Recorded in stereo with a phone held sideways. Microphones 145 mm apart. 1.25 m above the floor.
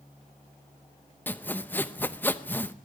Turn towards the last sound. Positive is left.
turn(degrees=10)  # may be behind; listen again after turning